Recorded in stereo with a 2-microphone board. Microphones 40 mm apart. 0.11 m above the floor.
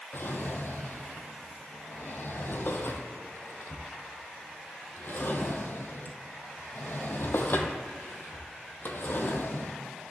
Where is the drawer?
60° left (ahead or behind), 0.9 m.